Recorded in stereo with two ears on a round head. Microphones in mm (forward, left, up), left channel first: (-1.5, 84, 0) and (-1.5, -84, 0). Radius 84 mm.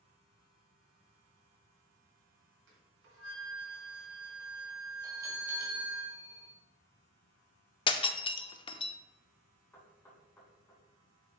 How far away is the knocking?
About 3.5 m.